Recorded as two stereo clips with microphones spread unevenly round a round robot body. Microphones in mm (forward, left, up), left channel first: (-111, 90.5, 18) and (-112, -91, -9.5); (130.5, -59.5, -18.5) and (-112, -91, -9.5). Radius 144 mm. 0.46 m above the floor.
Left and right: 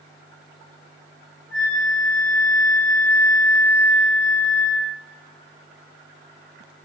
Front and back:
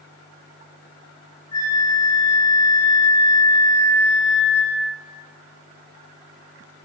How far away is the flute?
About 7.5 m.